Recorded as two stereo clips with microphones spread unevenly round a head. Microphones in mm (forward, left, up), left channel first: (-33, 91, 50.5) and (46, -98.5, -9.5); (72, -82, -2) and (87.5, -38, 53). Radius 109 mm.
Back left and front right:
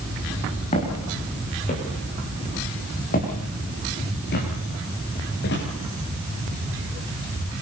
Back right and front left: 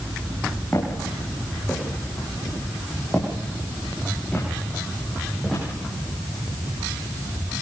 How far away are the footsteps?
About 7 m.